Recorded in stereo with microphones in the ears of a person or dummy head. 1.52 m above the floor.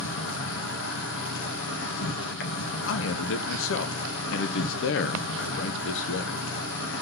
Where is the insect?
70° left (ahead or behind), 2.0 m.